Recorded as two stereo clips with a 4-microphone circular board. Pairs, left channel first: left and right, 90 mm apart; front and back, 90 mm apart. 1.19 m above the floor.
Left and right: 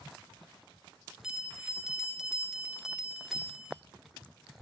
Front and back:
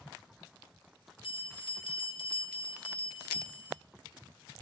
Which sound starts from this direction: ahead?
A bell, at 1.2 s.